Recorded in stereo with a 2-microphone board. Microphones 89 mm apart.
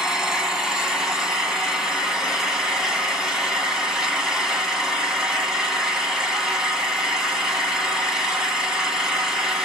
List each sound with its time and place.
0.0 s an engine running: 5° right (ahead or behind), 1.1 m